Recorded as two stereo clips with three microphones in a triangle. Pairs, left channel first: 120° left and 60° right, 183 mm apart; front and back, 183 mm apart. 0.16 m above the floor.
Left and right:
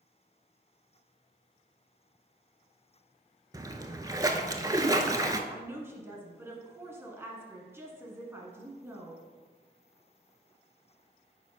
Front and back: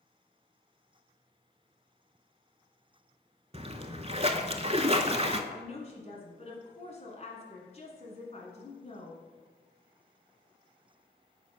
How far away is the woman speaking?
About 1.4 m.